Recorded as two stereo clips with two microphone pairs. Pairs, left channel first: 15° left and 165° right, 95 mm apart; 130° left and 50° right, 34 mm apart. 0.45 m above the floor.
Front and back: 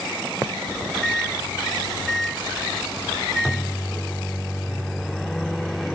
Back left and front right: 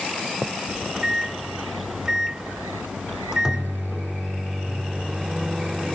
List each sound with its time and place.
0.7 s a microwave: 60° right